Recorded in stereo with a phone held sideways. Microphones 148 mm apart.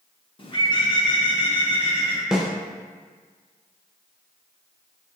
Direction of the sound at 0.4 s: 35° left (ahead or behind).